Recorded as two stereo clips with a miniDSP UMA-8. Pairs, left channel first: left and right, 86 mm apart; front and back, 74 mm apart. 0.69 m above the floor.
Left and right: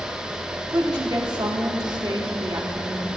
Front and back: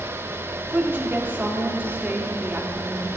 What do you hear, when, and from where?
0.7 s a woman speaking: 115° right, 1.7 m